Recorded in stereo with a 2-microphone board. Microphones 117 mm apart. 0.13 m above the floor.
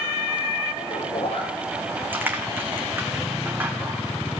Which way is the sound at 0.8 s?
55° left (ahead or behind).